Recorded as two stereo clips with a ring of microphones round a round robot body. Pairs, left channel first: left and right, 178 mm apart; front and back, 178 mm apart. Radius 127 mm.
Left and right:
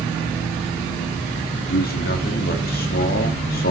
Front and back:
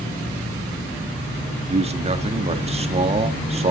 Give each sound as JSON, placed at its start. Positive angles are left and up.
{"t": 1.7, "sound": "a man speaking", "azimuth_deg": 130, "distance_m": 1.7}